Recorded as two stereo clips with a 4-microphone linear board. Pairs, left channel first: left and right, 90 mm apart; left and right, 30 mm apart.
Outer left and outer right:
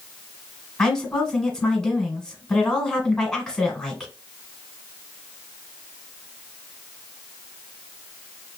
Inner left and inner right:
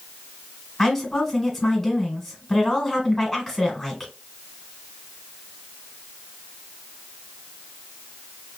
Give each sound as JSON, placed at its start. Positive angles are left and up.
{"t": 0.8, "sound": "a woman speaking", "side_deg": 5, "distance_m": 1.3}